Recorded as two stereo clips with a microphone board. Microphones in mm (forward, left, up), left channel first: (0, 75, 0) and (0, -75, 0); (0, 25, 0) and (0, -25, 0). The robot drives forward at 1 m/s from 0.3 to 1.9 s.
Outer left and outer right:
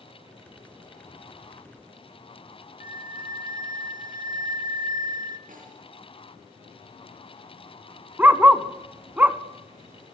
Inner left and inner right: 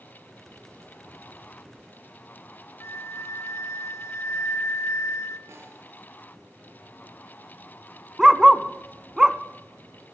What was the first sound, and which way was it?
A flute, 70° left (ahead or behind).